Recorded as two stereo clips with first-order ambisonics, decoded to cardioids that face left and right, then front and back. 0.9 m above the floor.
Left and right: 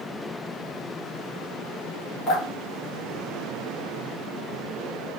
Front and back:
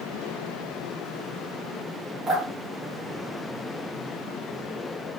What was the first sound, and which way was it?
Dripping, 90° left.